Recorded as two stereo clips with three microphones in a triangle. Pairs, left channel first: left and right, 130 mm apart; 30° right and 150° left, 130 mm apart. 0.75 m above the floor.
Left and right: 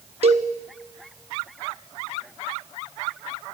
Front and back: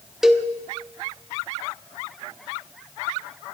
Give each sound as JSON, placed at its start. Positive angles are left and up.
{"t": 0.2, "sound": "a cowbell", "azimuth_deg": -120, "distance_m": 0.8}